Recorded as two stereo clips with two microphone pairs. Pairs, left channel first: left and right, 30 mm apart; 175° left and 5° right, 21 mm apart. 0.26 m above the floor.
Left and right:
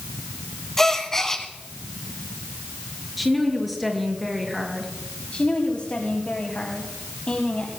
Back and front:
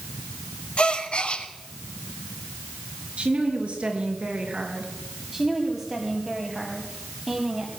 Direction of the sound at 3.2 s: 5° right.